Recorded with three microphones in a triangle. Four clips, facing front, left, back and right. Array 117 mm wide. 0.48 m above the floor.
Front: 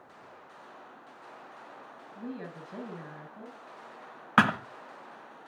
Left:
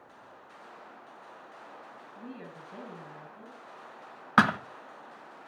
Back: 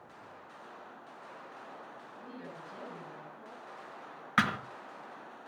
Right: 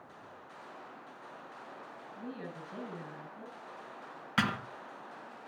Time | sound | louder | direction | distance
2.1 | a woman speaking | right 2 dB, front 8 dB | straight ahead | 6 m
4.4 | a thud | left 9 dB, front 6 dB | 45° left | 1.3 m